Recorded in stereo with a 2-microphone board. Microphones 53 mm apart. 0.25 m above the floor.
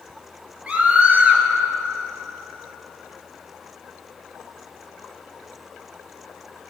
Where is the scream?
25° right (ahead or behind), 3.5 m.